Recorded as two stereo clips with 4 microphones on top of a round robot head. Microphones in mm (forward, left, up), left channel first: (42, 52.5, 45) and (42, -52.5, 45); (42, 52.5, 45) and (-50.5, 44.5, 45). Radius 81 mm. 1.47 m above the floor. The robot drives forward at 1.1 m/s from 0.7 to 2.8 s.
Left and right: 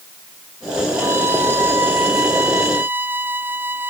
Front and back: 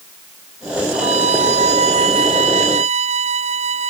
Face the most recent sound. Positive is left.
turn(degrees=-165)